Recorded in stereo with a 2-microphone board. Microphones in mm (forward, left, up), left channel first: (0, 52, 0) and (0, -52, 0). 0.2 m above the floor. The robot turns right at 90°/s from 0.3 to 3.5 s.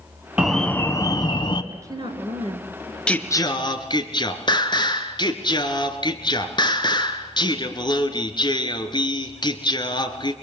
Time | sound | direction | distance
0.4 | an alarm | 10° right | 1.3 m
1.7 | a woman speaking | 155° right | 3 m
3.1 | singing | 10° left | 1.9 m